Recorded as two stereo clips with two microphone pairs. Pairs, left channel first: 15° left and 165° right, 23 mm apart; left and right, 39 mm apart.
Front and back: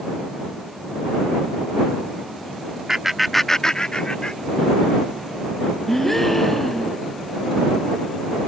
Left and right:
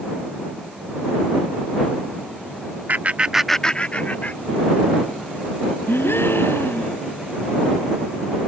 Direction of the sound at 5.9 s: 90° left.